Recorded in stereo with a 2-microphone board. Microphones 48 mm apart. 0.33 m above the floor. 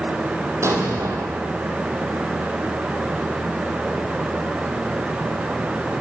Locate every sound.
0.6 s an explosion: 75° right (ahead or behind), 3 m